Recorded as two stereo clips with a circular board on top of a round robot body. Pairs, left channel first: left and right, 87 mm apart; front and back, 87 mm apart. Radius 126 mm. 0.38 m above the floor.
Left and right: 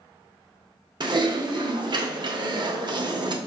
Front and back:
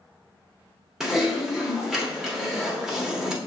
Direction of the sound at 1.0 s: 95° right.